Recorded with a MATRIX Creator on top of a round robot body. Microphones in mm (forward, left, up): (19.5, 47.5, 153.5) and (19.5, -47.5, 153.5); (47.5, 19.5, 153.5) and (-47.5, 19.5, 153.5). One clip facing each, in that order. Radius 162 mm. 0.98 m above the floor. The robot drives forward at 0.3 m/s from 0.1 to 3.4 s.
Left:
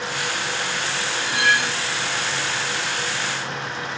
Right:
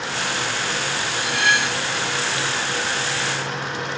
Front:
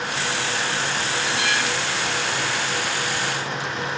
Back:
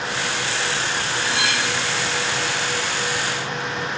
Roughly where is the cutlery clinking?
Behind.